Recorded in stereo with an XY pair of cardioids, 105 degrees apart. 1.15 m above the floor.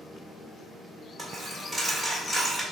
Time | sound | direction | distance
1.2 | a dropped coin | 25° right | 1.6 m